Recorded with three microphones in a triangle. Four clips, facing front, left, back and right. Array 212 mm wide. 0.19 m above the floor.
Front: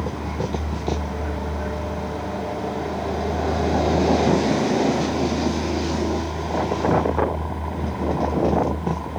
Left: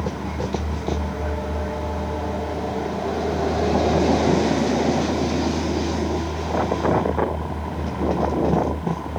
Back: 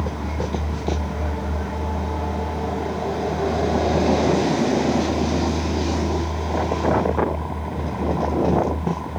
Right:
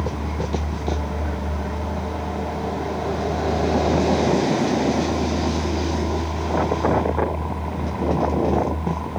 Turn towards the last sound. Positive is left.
No sound to turn to.